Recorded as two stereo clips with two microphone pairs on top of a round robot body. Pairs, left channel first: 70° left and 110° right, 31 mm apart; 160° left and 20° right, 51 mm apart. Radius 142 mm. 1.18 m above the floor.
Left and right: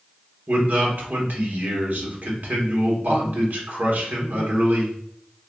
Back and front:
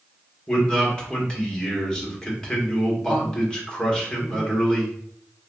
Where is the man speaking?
125° right, 1.1 m.